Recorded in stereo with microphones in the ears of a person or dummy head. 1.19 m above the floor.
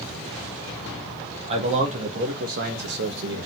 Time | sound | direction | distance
1.5 | a man speaking | 35° right (ahead or behind) | 1.6 m